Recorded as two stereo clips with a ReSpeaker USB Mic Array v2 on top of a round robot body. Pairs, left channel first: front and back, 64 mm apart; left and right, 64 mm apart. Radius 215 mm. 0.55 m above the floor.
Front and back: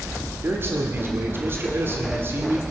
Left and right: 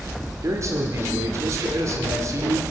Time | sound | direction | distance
0.4 | a man speaking | 130° right | 2 m